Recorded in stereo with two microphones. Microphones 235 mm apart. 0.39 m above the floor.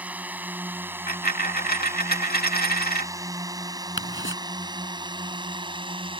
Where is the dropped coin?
40° left (ahead or behind).